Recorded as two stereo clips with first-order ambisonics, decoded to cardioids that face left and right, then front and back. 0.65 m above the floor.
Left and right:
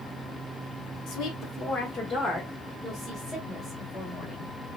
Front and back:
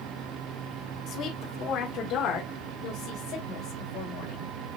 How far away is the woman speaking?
About 1.2 m.